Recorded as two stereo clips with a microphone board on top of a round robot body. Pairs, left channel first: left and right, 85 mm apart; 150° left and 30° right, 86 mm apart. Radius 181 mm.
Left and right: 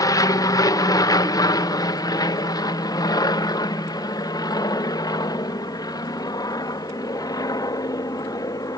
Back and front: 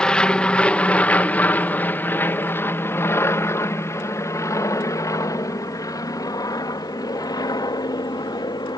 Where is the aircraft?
75° left; by 8.8 s 125° left.